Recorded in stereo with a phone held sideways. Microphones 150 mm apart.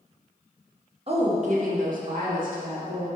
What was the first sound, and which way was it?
A woman speaking, 40° right (ahead or behind).